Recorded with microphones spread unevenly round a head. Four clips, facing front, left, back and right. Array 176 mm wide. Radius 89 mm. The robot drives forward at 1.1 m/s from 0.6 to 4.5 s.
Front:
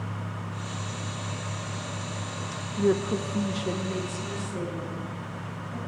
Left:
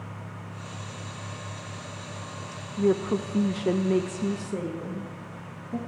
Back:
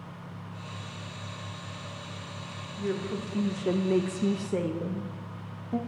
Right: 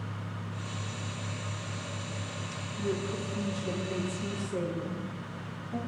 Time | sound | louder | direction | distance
2.8 | a woman speaking | left 9 dB, front 7 dB | 50° left | 1.2 m